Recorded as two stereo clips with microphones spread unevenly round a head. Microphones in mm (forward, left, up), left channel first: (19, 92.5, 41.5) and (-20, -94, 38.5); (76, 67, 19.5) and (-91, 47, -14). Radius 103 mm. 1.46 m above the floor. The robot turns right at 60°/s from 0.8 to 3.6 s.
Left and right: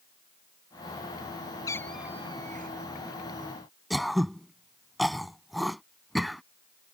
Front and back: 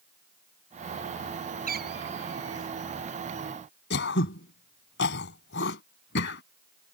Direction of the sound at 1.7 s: 150° left.